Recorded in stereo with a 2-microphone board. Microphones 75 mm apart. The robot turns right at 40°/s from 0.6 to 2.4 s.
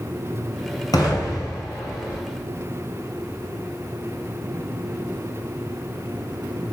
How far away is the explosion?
About 1.6 m.